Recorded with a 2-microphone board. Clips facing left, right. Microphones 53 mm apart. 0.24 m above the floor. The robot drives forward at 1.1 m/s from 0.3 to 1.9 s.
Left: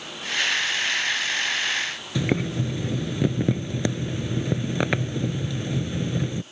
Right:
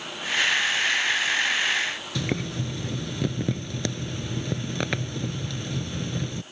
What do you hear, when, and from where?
2.1 s boiling: 20° left (ahead or behind)